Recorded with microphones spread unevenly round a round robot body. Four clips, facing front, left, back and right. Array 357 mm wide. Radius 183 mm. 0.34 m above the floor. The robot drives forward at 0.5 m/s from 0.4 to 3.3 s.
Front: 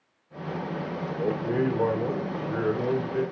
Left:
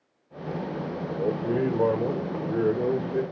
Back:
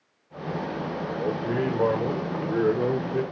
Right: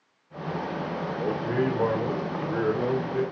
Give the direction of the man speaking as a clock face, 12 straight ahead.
10 o'clock.